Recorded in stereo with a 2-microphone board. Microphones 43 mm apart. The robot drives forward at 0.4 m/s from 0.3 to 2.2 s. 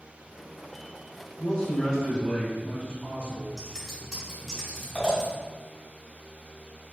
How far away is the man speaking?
About 1.2 m.